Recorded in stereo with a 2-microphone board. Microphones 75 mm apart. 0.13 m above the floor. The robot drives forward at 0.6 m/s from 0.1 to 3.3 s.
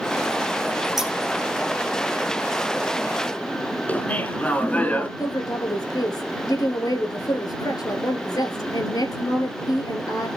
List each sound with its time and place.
1.0 s scissors: 5° right (ahead or behind), 3 m
3.9 s laughter: 20° left (ahead or behind), 1.1 m
5.2 s a woman speaking: 60° left (ahead or behind), 1.9 m